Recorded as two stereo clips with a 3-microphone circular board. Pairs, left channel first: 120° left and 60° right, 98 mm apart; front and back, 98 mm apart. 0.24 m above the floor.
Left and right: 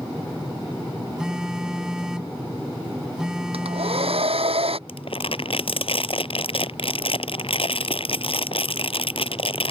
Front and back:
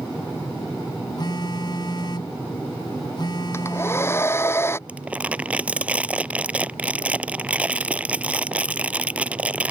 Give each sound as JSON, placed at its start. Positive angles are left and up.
{"t": 1.2, "sound": "a phone buzzing", "azimuth_deg": 20}
{"t": 3.5, "sound": "a hair dryer", "azimuth_deg": -65}
{"t": 4.9, "sound": "crumpling", "azimuth_deg": 105}